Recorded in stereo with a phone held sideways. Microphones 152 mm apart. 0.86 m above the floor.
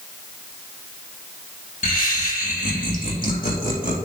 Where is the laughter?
65° left (ahead or behind), 3 m; by 4.0 s 75° left (ahead or behind), 4.5 m.